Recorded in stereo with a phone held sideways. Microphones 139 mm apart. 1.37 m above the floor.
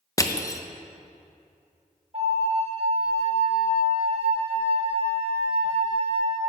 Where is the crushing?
25° left (ahead or behind), 0.6 m.